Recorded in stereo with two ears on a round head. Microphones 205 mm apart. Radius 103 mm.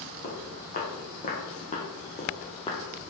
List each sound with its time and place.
0.2 s footsteps: 40° left (ahead or behind), 2.5 m; by 2.8 s 20° left (ahead or behind), 1.1 m